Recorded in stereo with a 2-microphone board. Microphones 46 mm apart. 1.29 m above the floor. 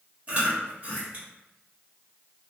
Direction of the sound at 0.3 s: 40° right (ahead or behind).